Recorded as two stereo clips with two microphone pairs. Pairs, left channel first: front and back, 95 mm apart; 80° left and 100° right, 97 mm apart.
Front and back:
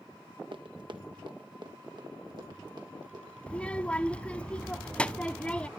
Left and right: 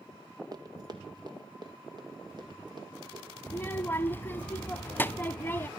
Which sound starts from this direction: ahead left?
A child speaking, at 3.5 s.